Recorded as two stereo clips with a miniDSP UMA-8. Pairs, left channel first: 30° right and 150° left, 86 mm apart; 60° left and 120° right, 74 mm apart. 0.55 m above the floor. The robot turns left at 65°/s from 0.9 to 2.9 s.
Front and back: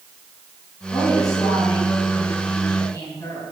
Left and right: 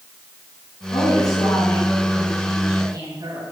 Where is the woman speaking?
50° left, 8 m; by 3.5 s 75° right, 8 m.